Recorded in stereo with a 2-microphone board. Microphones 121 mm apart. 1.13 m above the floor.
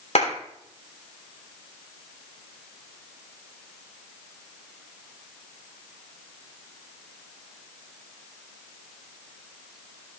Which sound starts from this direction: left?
A clap, at 0.1 s.